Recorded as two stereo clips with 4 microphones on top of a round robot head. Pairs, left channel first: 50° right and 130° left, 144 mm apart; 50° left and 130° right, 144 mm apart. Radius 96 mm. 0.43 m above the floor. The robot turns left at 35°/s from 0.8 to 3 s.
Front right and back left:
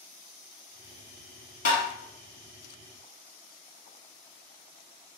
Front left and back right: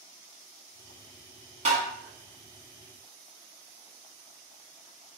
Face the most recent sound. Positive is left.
turn(degrees=-130)